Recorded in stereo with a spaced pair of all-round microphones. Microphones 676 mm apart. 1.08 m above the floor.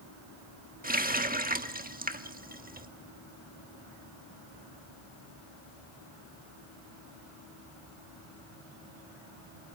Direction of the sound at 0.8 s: 15° right (ahead or behind).